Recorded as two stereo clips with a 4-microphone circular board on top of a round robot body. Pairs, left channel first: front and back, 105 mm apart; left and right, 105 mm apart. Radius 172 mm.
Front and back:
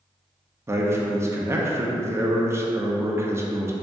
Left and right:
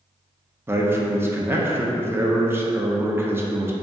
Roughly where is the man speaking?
Behind right.